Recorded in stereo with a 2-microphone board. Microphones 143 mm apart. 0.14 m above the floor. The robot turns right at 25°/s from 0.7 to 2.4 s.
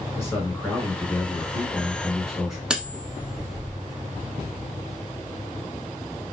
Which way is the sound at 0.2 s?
15° left (ahead or behind).